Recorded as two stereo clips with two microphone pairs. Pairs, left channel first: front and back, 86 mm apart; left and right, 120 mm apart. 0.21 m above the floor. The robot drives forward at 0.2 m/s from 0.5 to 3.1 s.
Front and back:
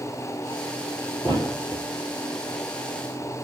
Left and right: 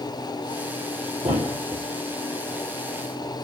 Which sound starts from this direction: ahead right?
A thud, at 1.2 s.